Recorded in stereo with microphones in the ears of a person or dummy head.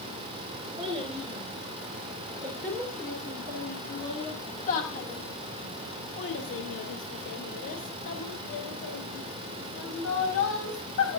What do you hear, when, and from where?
0.8 s a child speaking: 10° right (ahead or behind), 3.5 m; by 11.2 s 75° left (ahead or behind), 6 m